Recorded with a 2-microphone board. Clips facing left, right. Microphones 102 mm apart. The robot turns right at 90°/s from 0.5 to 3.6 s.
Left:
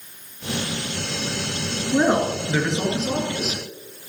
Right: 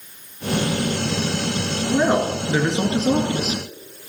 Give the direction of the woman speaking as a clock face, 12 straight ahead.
7 o'clock.